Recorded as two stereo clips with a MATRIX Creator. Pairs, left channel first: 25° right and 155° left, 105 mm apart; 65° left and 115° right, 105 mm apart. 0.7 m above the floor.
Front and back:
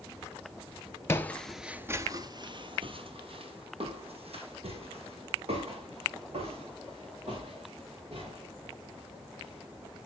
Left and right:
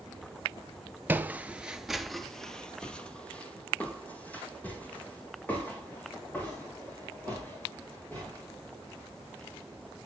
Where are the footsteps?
55° right, 0.7 m; by 9.6 s 140° left, 6 m.